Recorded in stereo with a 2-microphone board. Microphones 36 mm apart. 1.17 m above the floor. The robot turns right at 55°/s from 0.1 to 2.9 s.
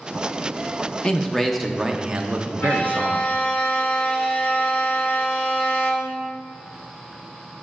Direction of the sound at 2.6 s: 55° left (ahead or behind).